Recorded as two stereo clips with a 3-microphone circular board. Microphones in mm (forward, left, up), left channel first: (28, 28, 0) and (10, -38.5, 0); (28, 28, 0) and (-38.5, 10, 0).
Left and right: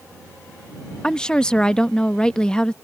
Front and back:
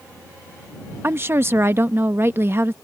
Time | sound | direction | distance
1.0 | a woman speaking | 150° left | ?